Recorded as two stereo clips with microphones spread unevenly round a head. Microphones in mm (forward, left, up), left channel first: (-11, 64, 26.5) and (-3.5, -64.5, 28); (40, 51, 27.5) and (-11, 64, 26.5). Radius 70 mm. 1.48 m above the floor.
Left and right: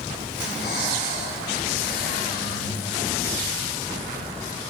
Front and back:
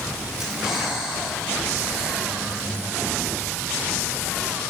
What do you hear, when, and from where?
0.4 s breathing: 80° left, 6 m